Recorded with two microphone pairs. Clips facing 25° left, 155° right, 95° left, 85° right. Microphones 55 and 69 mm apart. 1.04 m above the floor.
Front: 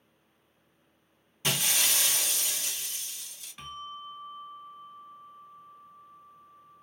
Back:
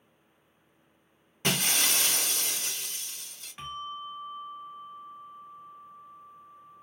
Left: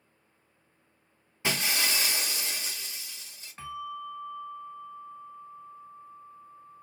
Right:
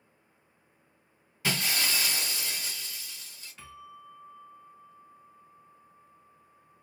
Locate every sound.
1.4 s breaking glass: 160° left, 1.4 m
3.6 s a bell: 145° left, 1.7 m